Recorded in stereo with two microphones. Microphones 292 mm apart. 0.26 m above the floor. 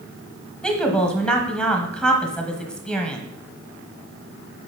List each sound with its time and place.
0.6 s a woman speaking: 5° left (ahead or behind), 1.2 m